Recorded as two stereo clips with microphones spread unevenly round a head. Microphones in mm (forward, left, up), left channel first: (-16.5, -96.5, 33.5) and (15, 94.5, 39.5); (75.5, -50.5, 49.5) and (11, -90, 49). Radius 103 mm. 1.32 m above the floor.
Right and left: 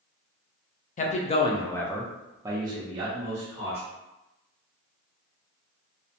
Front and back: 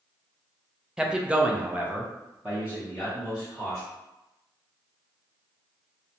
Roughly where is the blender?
No blender in this recording.